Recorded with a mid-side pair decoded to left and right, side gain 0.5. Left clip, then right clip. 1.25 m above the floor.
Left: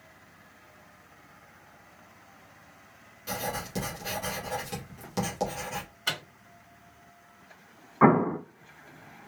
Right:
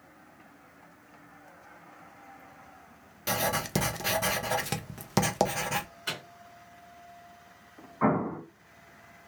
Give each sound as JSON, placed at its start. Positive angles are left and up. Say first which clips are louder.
{"t": 3.3, "sound": "writing", "louder": "right 5 dB", "azimuth_deg": -65, "distance_m": 0.6}
{"t": 6.1, "sound": "a microwave", "louder": "left 8 dB", "azimuth_deg": 40, "distance_m": 1.3}
{"t": 8.0, "sound": "an explosion", "louder": "left 6 dB", "azimuth_deg": 55, "distance_m": 0.8}